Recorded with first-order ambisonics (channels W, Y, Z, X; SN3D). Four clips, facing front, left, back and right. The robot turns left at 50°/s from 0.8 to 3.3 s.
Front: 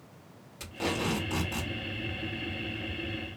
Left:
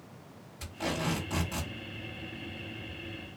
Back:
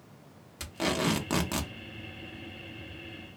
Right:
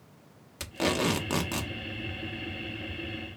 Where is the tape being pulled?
110° right, 0.9 m; by 1.7 s 155° right, 0.9 m.